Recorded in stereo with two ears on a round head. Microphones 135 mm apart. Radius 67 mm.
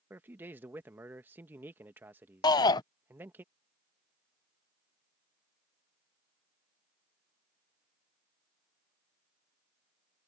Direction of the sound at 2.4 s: 25° left (ahead or behind).